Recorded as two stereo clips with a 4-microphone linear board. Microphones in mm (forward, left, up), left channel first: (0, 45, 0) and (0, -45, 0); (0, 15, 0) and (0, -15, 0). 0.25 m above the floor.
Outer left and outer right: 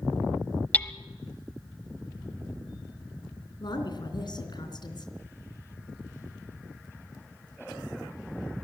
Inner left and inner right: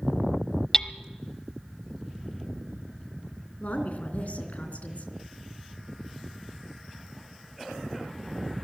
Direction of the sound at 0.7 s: 20° left (ahead or behind).